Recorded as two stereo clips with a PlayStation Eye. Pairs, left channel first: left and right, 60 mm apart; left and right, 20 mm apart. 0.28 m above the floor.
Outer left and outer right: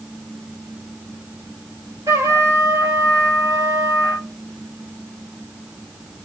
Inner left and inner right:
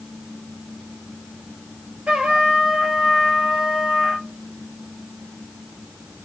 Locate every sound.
2.1 s a trumpet: 65° right (ahead or behind), 1.9 m